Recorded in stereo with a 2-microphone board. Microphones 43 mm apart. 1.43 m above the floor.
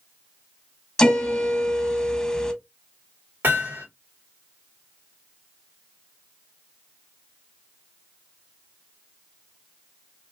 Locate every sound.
1.0 s a piano: 10° left (ahead or behind), 1.1 m
3.4 s hammering: 50° right (ahead or behind), 2 m